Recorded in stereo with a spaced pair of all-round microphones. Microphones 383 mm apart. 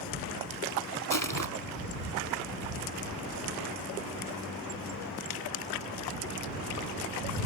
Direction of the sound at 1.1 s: 55° left (ahead or behind).